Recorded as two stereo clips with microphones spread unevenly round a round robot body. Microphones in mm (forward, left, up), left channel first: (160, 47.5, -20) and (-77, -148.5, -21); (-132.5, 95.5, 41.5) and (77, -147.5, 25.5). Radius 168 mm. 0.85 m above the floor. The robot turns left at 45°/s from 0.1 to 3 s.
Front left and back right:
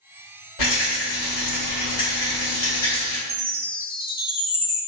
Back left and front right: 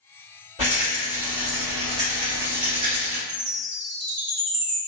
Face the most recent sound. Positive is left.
turn(degrees=-70)